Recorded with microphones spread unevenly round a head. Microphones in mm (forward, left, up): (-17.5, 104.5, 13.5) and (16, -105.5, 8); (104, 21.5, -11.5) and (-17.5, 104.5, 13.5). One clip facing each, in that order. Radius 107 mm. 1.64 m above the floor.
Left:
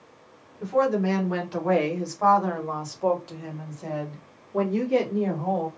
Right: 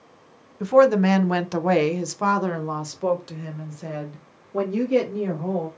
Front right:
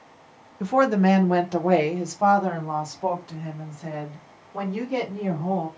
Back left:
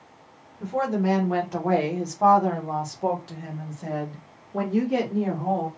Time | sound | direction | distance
0.6 | a woman speaking | 65° right | 0.8 m